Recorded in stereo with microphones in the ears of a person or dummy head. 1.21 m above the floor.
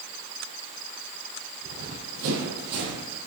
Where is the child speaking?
I don't hear a child speaking.